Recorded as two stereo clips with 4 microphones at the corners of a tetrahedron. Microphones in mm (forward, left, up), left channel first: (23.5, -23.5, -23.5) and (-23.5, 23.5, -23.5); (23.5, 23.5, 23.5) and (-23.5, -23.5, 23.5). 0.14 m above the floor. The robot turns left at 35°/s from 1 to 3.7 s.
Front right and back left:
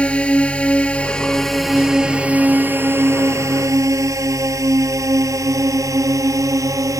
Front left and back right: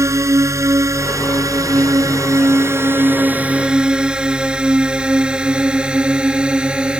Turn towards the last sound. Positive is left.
turn(degrees=150)